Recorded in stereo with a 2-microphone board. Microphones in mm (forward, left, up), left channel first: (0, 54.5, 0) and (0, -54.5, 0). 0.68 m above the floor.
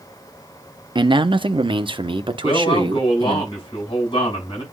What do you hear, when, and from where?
0.9 s a man speaking: 40° right (ahead or behind), 0.7 m; by 3.4 s 45° right (ahead or behind), 1.7 m
2.4 s a man speaking: 50° left (ahead or behind), 7.5 m